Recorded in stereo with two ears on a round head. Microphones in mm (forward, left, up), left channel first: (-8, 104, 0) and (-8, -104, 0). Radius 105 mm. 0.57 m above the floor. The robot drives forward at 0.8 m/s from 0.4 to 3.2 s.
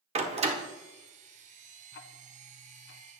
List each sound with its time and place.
0.1 s a door slam: 25° right (ahead or behind), 1.0 m; by 0.6 s 30° right (ahead or behind), 0.9 m
1.9 s ticking: 50° left (ahead or behind), 0.8 m; by 3.0 s 45° left (ahead or behind), 0.9 m